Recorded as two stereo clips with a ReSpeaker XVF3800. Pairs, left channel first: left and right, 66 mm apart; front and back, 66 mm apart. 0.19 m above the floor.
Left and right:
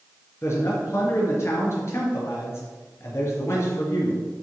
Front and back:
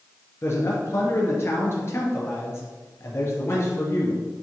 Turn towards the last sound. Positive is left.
turn(degrees=50)